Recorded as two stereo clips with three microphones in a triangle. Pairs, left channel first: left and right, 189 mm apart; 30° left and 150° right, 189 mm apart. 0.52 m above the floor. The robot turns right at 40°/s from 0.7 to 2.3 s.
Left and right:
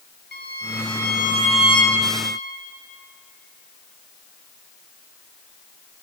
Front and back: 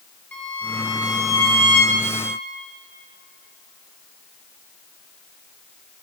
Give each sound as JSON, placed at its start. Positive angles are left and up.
{"t": 0.3, "sound": "a violin", "azimuth_deg": 110, "distance_m": 2.5}